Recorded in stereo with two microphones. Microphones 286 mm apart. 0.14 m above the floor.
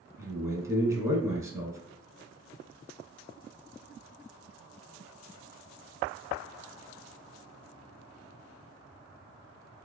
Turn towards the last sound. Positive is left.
turn(degrees=-10)  # may be behind; listen again after turning